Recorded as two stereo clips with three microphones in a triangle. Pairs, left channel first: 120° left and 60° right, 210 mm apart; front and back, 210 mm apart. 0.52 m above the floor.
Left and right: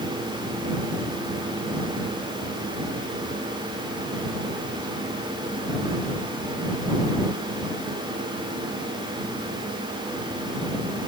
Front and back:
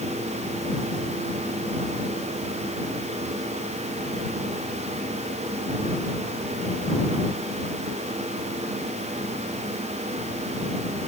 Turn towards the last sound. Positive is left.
No sound to turn to.